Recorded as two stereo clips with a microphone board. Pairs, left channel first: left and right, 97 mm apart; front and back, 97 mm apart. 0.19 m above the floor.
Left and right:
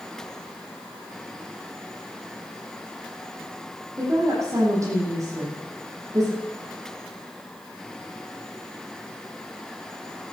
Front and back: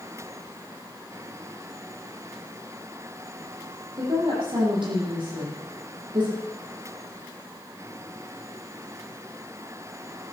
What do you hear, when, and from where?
4.0 s a woman speaking: 145° right, 8.5 m